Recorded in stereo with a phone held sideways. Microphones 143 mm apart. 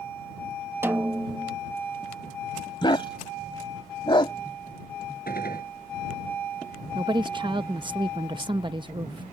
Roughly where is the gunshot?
Left.